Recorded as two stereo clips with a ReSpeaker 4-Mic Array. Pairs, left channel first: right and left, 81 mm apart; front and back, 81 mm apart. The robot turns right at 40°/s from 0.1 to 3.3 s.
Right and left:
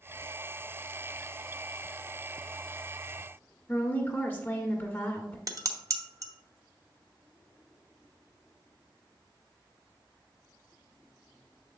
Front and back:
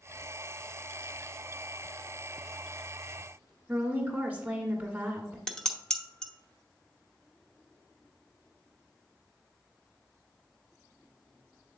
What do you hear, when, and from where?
3.7 s a woman speaking: 130° right, 1.4 m
5.5 s dishes clattering: 80° left, 0.8 m